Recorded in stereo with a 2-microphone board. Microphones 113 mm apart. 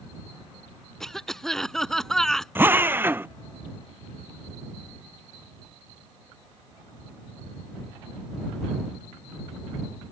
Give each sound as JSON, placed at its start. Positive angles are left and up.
{"t": 1.0, "sound": "a cough", "side_deg": 5}
{"t": 2.5, "sound": "a drill", "side_deg": -15}